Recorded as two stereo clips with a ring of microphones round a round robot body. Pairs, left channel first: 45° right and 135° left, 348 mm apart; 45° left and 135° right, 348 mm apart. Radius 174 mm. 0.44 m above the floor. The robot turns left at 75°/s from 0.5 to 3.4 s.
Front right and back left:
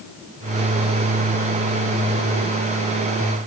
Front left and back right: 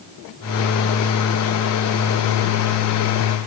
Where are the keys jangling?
I don't hear keys jangling.